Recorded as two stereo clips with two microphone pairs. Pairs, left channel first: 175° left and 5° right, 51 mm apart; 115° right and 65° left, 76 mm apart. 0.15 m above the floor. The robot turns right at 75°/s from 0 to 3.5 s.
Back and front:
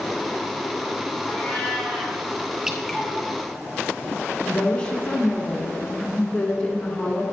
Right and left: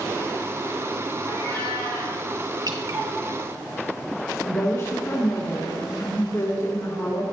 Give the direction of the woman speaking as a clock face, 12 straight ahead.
4 o'clock.